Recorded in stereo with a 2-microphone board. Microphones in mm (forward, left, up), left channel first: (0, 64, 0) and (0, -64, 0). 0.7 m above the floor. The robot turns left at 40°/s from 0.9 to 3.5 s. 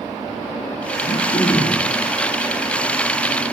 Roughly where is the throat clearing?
Ahead left.